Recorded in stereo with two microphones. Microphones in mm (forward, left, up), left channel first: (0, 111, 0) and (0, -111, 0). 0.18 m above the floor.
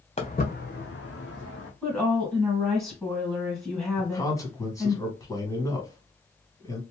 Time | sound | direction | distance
0.2 | footsteps | 30° left (ahead or behind) | 0.9 m
1.8 | a woman speaking | 10° left (ahead or behind) | 1.8 m
4.0 | a man speaking | 15° left (ahead or behind) | 1.3 m